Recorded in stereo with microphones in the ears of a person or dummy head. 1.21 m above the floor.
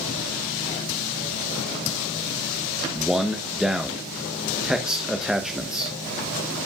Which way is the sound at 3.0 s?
5° right (ahead or behind).